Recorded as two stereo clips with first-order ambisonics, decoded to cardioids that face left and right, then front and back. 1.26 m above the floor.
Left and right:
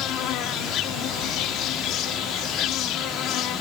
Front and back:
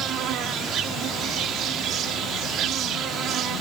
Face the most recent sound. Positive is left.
turn(degrees=135)